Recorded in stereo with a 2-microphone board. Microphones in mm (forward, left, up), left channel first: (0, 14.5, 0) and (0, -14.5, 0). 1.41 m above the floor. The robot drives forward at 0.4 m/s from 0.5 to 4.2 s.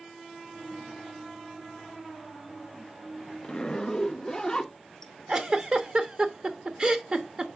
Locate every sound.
3.4 s a zipper: 30° left (ahead or behind), 0.6 m; by 5.1 s 20° left (ahead or behind), 0.8 m
5.3 s a giggle: 30° right (ahead or behind), 0.9 m